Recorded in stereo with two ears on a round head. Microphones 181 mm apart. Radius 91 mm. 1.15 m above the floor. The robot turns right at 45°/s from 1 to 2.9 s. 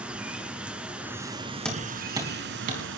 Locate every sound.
0.0 s running water: 175° right, 2 m; by 3.0 s 90° right, 2 m
1.6 s hammering: 5° left (ahead or behind), 4.5 m; by 2.8 s 45° right (ahead or behind), 4.5 m